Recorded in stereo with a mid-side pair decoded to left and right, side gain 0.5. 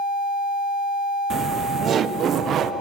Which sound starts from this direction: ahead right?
Laughter, at 1.3 s.